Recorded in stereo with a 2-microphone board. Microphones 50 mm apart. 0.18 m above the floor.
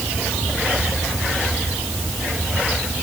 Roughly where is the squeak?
I don't hear a squeak.